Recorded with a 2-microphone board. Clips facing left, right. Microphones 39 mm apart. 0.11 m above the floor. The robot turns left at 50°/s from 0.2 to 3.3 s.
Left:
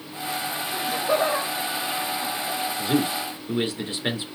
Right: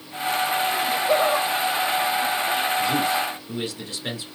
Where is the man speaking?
25° left (ahead or behind), 1.4 m; by 4.2 s 30° left (ahead or behind), 1.4 m.